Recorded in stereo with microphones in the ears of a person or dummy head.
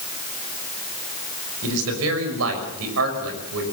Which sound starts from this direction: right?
A man speaking, at 1.6 s.